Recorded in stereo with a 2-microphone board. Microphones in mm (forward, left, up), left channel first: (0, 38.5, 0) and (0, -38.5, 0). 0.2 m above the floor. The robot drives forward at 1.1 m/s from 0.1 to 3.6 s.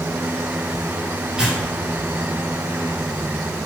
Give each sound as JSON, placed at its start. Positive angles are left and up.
{"t": 1.4, "sound": "tearing paper", "side_deg": -10, "distance_m": 3.5}